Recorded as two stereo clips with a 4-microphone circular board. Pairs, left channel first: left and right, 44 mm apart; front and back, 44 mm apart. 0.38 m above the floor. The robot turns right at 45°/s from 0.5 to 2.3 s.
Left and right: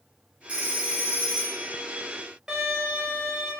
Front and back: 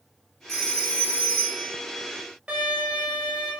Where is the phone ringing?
70° right, 0.7 m; by 1.7 s 15° right, 0.7 m.